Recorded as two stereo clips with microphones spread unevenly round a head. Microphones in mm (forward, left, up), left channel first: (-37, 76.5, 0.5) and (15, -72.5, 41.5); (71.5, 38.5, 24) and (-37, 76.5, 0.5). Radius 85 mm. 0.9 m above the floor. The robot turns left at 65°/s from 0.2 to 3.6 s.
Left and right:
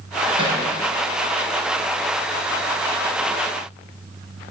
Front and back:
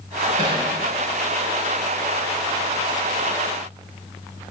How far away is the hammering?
About 4.5 m.